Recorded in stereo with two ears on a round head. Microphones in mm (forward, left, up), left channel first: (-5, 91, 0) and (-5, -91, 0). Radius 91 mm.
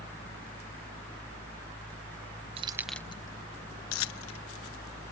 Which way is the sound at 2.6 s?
25° right (ahead or behind).